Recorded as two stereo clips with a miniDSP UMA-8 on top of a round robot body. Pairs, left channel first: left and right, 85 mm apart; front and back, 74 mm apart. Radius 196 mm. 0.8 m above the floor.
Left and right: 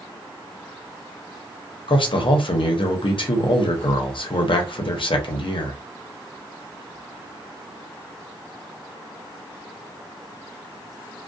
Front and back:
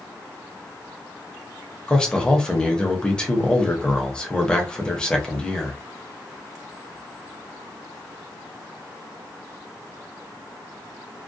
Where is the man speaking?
75° left, 0.8 m.